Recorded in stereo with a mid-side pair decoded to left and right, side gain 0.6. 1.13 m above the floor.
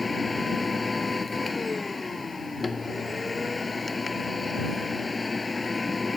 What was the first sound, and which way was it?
A machine running, 20° left.